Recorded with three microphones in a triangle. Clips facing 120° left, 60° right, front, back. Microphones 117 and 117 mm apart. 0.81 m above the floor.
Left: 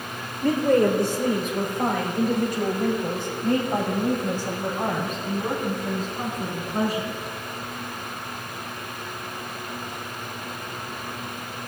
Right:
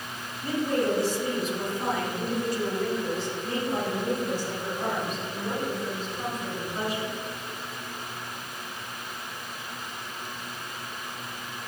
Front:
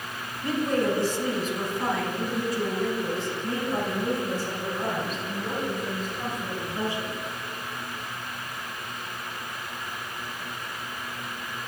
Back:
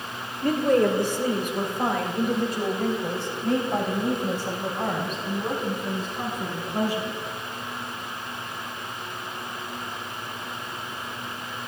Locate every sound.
0.4 s a woman speaking: 145° left, 2 m; by 7.2 s 160° left, 7 m